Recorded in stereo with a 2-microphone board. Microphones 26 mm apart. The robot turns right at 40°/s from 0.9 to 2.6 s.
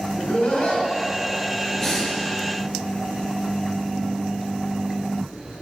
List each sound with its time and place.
0.1 s laughter: 40° left (ahead or behind), 2.5 m
1.8 s breathing: 15° left (ahead or behind), 2 m; by 2.1 s 30° left (ahead or behind), 2 m